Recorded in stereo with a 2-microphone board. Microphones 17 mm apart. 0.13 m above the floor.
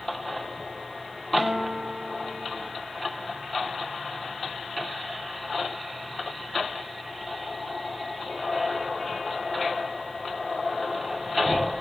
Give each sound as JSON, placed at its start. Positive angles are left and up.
{"t": 1.4, "sound": "a guitar", "side_deg": -50, "distance_m": 5.0}